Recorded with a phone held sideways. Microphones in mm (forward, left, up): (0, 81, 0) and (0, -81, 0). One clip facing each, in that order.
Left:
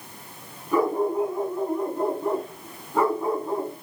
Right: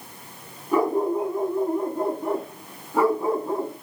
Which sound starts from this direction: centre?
A dog barking, at 0.7 s.